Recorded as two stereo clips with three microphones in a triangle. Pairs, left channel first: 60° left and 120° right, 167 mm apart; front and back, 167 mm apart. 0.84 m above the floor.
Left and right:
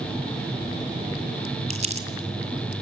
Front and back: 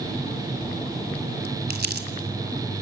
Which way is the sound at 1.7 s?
165° right.